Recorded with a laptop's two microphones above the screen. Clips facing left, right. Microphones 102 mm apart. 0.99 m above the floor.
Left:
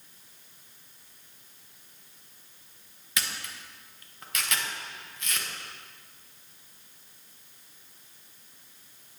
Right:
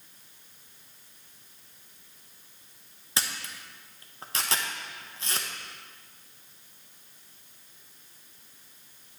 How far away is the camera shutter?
About 0.9 m.